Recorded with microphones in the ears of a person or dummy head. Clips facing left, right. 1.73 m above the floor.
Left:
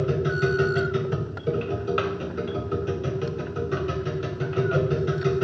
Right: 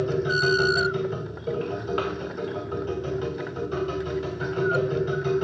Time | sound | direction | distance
0.0 | a machine running | 20° left (ahead or behind) | 0.7 m